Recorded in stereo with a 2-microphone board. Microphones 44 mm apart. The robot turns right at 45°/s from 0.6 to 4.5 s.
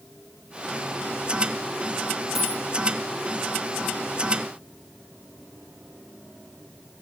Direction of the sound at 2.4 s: 10° right (ahead or behind).